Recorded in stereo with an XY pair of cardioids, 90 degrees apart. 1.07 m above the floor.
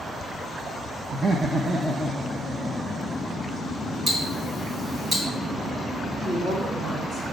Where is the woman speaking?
40° right, 2 m.